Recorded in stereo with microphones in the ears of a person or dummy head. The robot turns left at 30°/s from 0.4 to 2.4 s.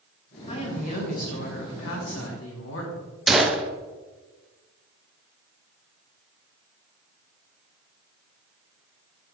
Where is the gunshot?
Centre (ahead or behind), 0.6 m.